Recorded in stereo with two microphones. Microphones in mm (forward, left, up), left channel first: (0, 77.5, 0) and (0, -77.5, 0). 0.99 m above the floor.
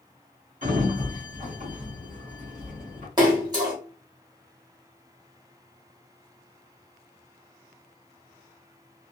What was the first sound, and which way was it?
A sliding door, 55° right (ahead or behind).